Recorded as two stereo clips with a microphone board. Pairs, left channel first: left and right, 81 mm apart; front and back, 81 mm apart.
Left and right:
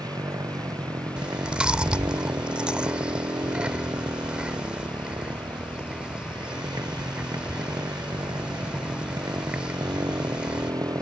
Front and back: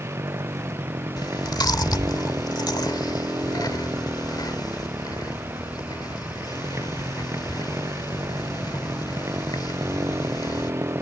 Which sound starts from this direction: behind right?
A motorcycle, at 0.0 s.